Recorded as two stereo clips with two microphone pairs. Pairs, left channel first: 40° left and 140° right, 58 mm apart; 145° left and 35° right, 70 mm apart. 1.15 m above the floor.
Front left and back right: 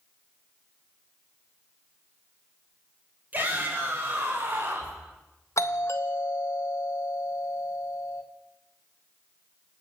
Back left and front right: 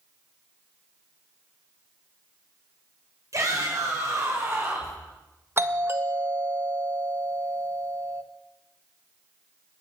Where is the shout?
75° right, 6 m; by 5.0 s 85° right, 6 m.